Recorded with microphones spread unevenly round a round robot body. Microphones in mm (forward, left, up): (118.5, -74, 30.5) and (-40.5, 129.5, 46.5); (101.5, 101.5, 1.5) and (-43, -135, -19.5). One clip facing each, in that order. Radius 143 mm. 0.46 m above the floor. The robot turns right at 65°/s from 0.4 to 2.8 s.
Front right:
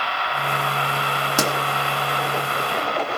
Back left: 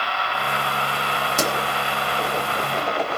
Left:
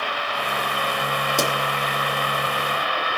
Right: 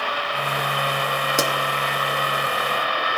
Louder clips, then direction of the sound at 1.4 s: Front right 2 dB, even; 35° right.